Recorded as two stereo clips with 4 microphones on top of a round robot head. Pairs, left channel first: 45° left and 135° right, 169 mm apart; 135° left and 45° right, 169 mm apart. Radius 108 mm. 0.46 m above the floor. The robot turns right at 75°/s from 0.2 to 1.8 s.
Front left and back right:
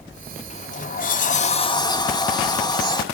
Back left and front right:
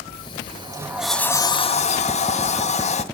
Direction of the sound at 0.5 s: 5° left.